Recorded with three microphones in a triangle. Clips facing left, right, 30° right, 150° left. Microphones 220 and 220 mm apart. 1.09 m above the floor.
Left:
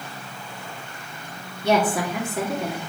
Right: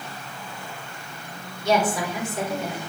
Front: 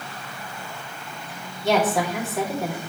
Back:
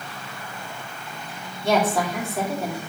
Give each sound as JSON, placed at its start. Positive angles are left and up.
{"t": 1.6, "sound": "a woman speaking", "azimuth_deg": 60, "distance_m": 2.5}